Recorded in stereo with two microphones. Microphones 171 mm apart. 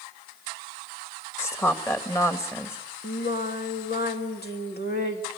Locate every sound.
1.4 s a woman speaking: 20° left (ahead or behind), 2 m
3.0 s singing: 85° left, 3 m